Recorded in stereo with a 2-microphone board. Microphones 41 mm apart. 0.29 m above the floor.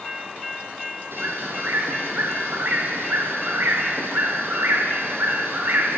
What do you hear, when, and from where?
1.1 s a bird: 65° right (ahead or behind), 1.5 m